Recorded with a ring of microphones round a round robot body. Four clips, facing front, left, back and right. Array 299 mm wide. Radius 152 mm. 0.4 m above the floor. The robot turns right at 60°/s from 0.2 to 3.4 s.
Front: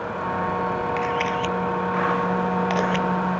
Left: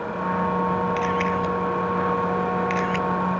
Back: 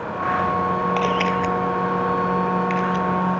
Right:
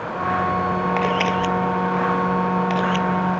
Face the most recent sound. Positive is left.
turn(degrees=15)